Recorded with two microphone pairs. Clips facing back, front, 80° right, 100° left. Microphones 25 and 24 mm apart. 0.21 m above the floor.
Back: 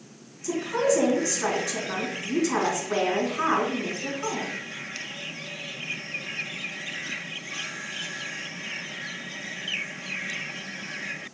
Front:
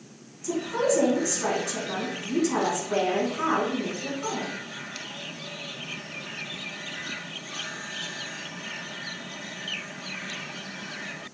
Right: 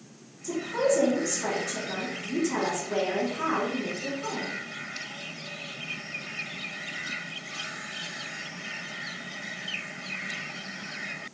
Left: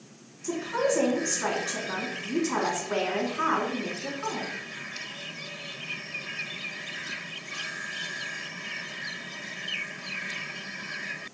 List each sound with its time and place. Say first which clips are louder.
0.4 s a woman speaking: back 1 dB, right 1 dB; 100° left, 2 m